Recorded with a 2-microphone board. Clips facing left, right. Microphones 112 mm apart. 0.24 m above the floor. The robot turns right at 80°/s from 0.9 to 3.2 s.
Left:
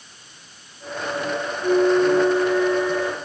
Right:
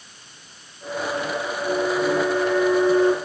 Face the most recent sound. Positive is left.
turn(degrees=-135)